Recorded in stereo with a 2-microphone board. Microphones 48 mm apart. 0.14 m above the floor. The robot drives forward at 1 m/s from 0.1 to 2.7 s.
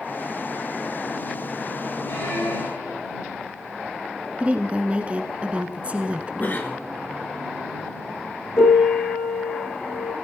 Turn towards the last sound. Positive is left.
turn(degrees=70)  # may be behind; listen again after turning